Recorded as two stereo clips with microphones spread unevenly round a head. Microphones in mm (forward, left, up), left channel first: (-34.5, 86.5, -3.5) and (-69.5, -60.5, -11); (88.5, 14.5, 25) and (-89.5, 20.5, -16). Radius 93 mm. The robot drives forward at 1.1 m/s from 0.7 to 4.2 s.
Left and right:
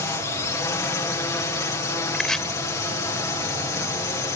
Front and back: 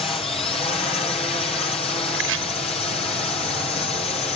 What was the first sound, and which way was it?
A drone, 40° left.